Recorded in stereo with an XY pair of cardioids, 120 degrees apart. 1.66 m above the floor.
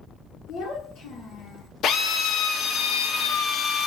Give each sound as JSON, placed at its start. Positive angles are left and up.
{"t": 0.5, "sound": "a child speaking", "azimuth_deg": 70, "distance_m": 1.6}
{"t": 1.8, "sound": "a drill", "azimuth_deg": 65, "distance_m": 0.7}